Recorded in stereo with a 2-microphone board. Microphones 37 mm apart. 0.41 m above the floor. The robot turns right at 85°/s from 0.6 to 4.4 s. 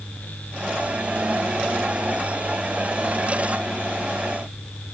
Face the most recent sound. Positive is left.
No sound to turn to.